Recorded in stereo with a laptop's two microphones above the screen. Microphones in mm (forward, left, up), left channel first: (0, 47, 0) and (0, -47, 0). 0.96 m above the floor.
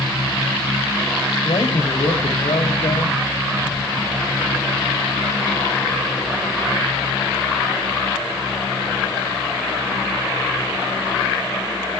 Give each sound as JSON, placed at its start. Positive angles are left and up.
{"t": 1.4, "sound": "a man speaking", "side_deg": 70, "distance_m": 2.0}